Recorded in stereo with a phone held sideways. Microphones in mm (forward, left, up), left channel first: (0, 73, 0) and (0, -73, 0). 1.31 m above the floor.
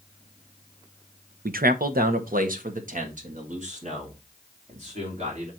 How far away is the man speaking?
About 0.7 m.